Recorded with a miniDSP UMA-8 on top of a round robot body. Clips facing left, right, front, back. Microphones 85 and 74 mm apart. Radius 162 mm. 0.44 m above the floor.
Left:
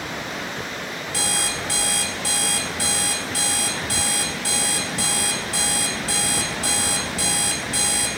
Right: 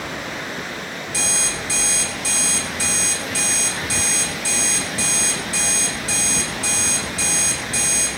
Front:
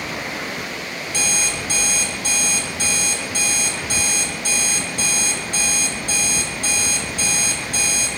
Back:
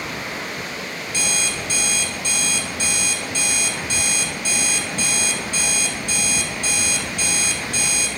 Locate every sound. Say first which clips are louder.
1.1 s an alarm clock: left 1 dB, front 1 dB; 50° left, 1.3 m